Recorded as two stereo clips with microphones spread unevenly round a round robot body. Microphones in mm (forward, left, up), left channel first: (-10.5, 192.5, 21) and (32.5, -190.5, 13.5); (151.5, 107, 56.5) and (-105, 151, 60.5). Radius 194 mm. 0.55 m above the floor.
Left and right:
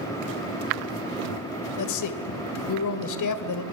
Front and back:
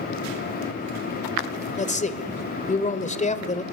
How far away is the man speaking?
About 1.9 m.